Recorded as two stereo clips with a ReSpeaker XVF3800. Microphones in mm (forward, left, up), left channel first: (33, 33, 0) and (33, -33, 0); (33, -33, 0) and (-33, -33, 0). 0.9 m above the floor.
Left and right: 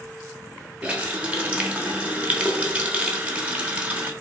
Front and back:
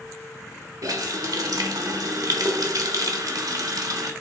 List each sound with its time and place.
0.8 s a running tap: 160° right, 0.6 m